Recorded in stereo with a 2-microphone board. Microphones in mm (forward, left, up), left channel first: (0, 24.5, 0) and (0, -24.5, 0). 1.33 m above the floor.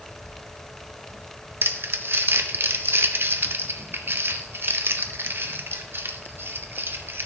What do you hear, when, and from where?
1.6 s crumpling: 50° right (ahead or behind), 0.7 m